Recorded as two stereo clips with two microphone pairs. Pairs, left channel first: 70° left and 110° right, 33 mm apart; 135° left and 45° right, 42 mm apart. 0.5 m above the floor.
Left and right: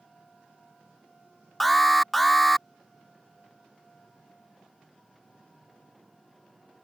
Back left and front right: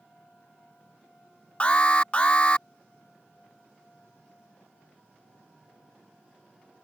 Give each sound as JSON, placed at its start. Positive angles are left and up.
{"t": 1.6, "sound": "an alarm", "azimuth_deg": 145}